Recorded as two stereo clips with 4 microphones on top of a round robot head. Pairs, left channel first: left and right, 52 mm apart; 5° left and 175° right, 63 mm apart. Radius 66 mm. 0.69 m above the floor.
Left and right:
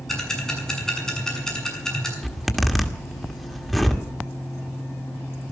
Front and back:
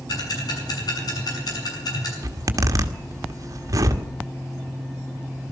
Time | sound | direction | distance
0.1 | ticking | 10° left | 6.5 m
2.2 | a zipper | straight behind | 1.6 m